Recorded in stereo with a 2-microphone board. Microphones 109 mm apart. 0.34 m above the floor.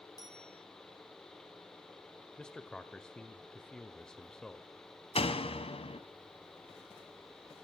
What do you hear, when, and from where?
0.2 s a bicycle bell: 30° left (ahead or behind), 9 m
2.4 s a man speaking: 5° left (ahead or behind), 1.1 m
5.2 s a door slam: 65° left (ahead or behind), 2 m